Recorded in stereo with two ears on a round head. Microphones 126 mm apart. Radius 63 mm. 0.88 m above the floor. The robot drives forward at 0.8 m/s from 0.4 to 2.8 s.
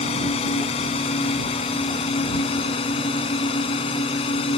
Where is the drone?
45° left (ahead or behind); by 4.6 s 40° left (ahead or behind).